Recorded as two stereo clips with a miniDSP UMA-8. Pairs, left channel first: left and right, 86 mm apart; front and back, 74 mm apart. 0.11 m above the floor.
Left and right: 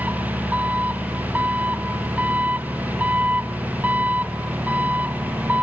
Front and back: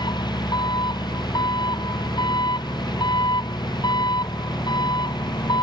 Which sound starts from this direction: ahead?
An engine running, at 0.0 s.